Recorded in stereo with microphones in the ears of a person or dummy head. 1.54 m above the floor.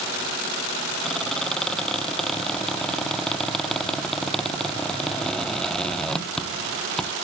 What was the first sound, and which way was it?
A squeak, 5° left (ahead or behind).